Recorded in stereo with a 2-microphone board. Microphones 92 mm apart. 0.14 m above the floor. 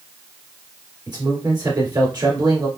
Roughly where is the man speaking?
Right.